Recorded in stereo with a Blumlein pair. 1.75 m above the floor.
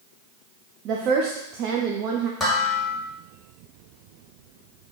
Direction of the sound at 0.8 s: 35° right.